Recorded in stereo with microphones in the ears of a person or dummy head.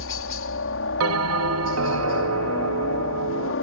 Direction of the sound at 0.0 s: 70° left (ahead or behind).